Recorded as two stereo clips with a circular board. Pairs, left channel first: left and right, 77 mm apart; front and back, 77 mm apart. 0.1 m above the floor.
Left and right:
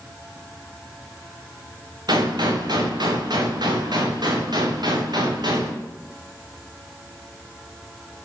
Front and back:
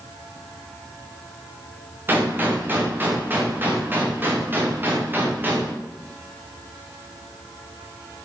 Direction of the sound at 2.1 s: 115° right.